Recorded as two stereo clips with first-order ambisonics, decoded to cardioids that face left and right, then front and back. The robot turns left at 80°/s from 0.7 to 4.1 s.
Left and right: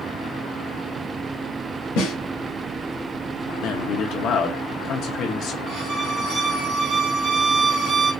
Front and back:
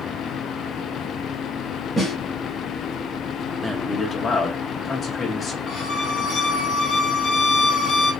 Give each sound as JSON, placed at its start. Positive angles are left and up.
{"t": 2.0, "sound": "a snare drum", "azimuth_deg": 90, "distance_m": 1.9}
{"t": 3.6, "sound": "a man speaking", "azimuth_deg": 100, "distance_m": 0.9}
{"t": 5.7, "sound": "a violin", "azimuth_deg": -50, "distance_m": 1.4}